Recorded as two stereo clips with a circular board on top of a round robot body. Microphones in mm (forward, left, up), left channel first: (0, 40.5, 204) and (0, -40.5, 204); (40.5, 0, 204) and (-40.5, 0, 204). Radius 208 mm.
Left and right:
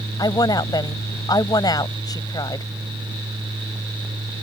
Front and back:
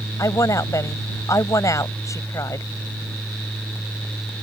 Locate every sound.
0.2 s a woman speaking: 50° left